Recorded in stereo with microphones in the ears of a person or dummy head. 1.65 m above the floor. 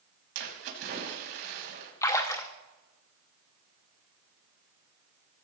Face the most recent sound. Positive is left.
turn(degrees=15)  # may be behind; listen again after turning